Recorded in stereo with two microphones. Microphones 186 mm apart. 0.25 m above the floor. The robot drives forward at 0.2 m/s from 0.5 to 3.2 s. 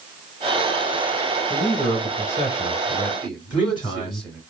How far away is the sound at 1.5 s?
About 1.4 m.